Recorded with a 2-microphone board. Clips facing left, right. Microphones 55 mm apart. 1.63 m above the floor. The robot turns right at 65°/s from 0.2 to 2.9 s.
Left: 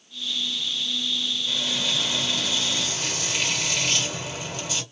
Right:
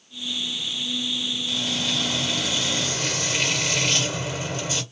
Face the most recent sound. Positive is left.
turn(degrees=-135)